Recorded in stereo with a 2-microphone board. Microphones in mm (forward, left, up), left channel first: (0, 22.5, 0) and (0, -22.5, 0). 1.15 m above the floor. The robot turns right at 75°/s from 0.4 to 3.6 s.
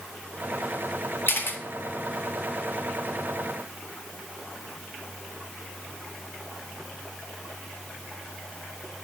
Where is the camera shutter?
55° left (ahead or behind), 0.6 m; by 1.6 s 50° left (ahead or behind), 0.6 m.